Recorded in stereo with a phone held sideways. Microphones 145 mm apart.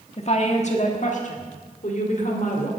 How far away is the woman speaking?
About 1.4 m.